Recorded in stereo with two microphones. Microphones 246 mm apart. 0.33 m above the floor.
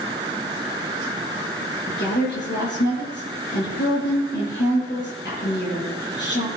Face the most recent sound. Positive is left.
turn(degrees=45)  # may be behind; listen again after turning